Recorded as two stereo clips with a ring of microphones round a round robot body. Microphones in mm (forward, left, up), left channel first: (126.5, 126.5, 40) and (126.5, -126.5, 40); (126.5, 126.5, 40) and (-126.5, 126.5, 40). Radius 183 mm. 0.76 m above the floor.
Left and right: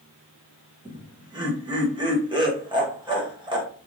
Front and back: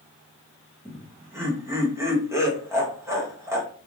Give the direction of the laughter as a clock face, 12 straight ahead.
4 o'clock.